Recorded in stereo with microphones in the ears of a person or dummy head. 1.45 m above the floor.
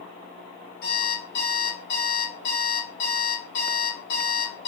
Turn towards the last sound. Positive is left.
turn(degrees=45)  # may be behind; listen again after turning